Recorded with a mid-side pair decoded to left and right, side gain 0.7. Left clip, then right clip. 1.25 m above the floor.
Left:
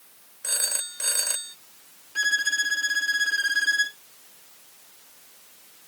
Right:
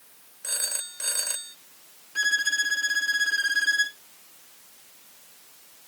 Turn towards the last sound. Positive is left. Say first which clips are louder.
# even
turn(degrees=0)